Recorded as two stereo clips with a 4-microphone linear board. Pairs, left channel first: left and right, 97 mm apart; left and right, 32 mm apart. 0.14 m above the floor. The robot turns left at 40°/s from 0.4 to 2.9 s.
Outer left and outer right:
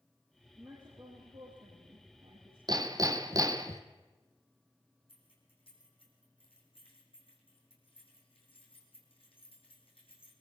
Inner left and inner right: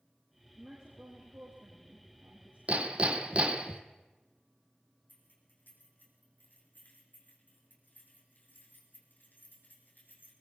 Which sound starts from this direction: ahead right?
A woman speaking, at 0.6 s.